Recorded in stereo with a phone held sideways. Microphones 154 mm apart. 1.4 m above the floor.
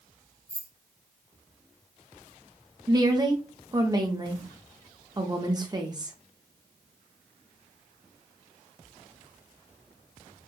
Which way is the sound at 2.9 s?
25° right (ahead or behind).